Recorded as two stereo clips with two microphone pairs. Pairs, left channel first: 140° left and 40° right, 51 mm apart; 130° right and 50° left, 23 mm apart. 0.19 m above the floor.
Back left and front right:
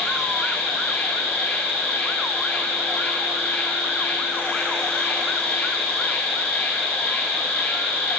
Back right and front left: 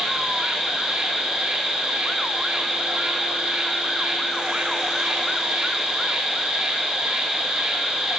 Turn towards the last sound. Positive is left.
turn(degrees=80)